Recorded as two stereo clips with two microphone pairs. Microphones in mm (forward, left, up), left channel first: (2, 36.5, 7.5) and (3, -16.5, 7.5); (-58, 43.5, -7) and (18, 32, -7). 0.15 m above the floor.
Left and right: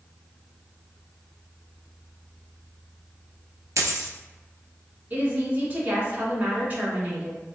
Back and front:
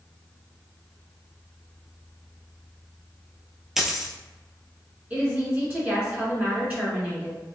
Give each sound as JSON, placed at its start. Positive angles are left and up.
{"t": 3.8, "sound": "a dropped coin", "azimuth_deg": -95, "distance_m": 0.5}
{"t": 5.1, "sound": "a woman speaking", "azimuth_deg": -65, "distance_m": 1.6}